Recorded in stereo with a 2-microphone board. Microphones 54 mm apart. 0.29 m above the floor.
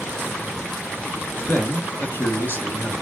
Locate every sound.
1.5 s a man speaking: 40° left (ahead or behind), 1.6 m